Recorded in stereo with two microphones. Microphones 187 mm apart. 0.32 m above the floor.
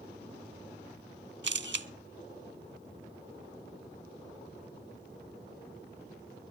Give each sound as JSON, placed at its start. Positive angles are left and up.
{"t": 1.4, "sound": "a camera shutter", "side_deg": -70, "distance_m": 0.5}